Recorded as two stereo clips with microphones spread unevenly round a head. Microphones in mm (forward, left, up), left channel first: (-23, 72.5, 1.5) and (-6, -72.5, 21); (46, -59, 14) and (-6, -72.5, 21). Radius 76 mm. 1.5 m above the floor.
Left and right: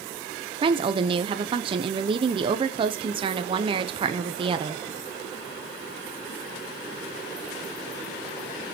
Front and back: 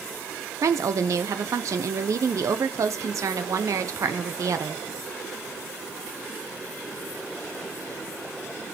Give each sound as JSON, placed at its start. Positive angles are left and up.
{"t": 0.6, "sound": "a woman speaking", "azimuth_deg": -140, "distance_m": 0.9}